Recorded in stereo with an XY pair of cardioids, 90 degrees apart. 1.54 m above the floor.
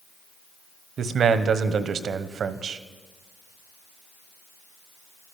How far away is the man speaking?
About 1.2 m.